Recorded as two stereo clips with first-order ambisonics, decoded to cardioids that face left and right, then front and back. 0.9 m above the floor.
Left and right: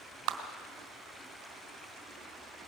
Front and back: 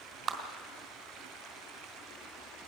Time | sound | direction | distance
0.3 | a clap | 120° right | 2.5 m